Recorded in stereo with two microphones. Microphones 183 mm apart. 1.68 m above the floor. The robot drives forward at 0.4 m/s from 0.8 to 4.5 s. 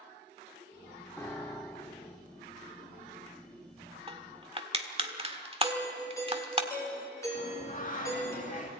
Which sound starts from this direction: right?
Crushing, at 4.1 s.